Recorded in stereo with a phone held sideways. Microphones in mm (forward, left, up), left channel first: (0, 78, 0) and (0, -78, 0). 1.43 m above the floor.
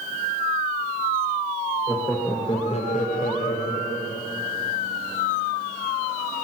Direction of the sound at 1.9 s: Centre (ahead or behind).